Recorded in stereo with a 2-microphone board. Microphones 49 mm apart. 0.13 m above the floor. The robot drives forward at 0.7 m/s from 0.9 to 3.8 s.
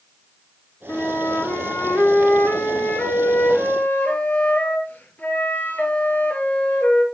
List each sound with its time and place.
0.9 s a flute: 40° left (ahead or behind), 2.0 m; by 7.0 s 30° left (ahead or behind), 2.5 m